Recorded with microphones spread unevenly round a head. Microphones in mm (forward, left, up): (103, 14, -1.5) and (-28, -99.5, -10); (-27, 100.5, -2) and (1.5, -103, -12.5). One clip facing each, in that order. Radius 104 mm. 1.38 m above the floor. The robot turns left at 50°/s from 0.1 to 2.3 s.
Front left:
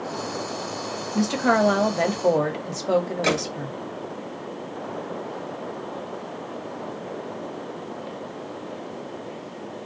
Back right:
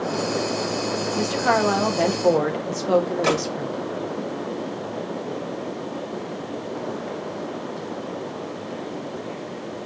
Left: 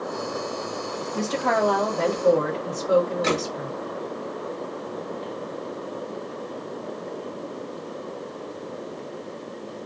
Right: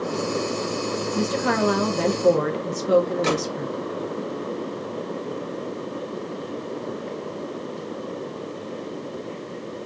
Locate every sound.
1.1 s a woman speaking: 10° left, 1.5 m; by 3.8 s 45° right, 1.5 m
3.2 s a gunshot: 35° right, 1.7 m